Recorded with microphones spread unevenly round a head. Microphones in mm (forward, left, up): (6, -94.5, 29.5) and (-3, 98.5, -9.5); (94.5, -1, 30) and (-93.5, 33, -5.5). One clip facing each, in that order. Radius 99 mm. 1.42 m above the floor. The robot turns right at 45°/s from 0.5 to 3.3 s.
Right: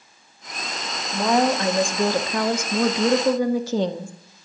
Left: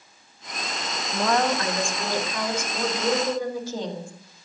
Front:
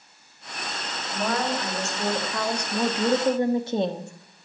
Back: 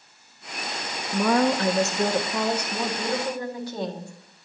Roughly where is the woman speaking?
Behind.